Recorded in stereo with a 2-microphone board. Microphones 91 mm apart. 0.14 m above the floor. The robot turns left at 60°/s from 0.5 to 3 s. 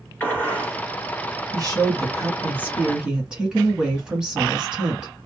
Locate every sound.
0.2 s a gunshot: 15° left (ahead or behind), 2.0 m; by 0.8 s 5° left (ahead or behind), 2.0 m
1.5 s a woman speaking: 80° right, 1.9 m; by 5.1 s 165° right, 1.9 m